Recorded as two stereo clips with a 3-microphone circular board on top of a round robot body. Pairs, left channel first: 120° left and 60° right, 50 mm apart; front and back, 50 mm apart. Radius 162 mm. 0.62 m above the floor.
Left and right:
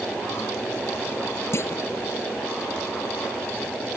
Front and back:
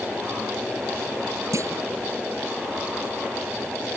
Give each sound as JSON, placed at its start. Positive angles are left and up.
{"t": 1.5, "sound": "a clunk", "azimuth_deg": 155}